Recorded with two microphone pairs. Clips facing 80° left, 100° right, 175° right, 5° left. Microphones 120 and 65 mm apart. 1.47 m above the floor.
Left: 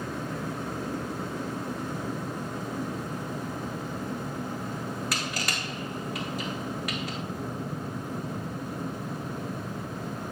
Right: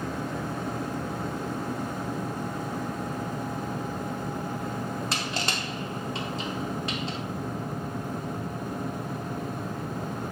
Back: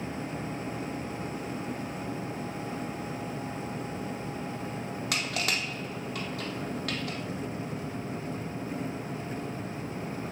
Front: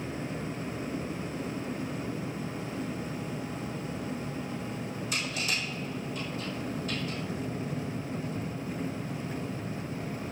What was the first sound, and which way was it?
Crushing, 165° right.